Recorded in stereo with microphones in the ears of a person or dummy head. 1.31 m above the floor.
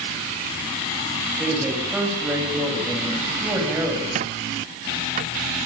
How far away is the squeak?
About 1.1 m.